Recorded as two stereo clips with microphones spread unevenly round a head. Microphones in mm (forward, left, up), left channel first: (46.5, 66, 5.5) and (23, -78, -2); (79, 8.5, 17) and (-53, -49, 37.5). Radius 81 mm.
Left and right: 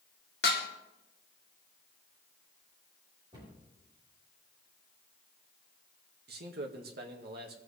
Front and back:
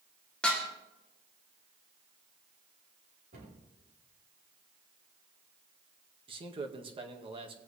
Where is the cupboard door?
165° right, 5 m.